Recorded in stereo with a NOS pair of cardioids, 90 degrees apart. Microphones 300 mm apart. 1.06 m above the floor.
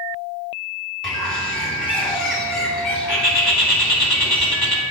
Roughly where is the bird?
Ahead.